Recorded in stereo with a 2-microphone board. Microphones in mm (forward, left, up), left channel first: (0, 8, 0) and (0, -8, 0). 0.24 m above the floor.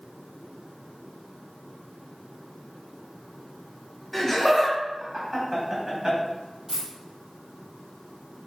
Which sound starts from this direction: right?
A dropped coin, at 6.7 s.